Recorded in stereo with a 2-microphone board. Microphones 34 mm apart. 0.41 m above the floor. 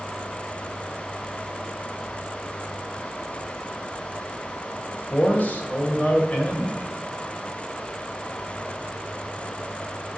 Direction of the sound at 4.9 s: 50° left (ahead or behind).